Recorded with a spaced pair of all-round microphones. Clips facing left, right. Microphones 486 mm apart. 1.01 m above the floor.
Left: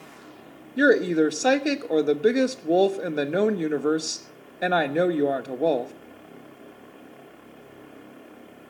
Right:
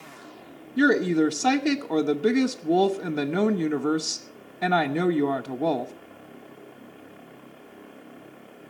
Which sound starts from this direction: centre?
A woman speaking, at 0.8 s.